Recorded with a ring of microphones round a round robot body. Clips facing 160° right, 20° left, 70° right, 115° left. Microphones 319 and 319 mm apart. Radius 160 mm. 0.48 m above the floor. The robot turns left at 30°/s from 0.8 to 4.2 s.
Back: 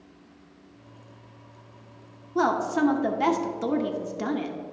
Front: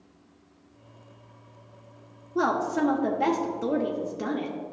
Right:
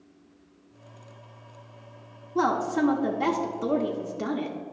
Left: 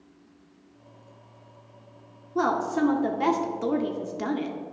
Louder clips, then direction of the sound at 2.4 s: Back 1 dB, even; 140° right.